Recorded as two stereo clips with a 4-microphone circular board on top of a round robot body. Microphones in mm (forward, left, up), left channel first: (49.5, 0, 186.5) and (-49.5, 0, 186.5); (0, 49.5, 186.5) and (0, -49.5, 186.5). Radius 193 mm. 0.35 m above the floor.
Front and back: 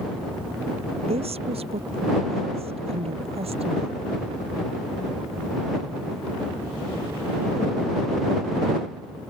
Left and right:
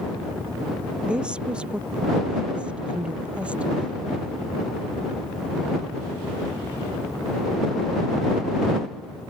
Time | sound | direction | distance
1.1 | a woman speaking | 170° right | ?